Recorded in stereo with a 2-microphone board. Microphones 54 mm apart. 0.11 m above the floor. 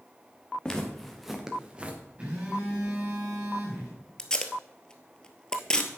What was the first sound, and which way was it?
Footsteps, 15° left (ahead or behind).